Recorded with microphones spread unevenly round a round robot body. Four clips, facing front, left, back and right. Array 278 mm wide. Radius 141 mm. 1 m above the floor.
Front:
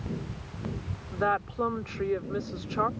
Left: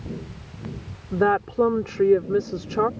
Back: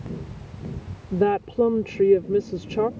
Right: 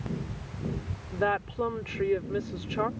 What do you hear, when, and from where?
1.1 s a woman speaking: 145° left